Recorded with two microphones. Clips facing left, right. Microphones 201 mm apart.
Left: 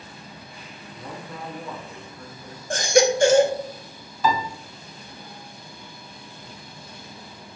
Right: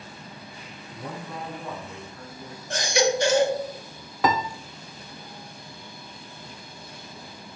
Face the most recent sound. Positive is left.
turn(degrees=-70)  # may be behind; listen again after turning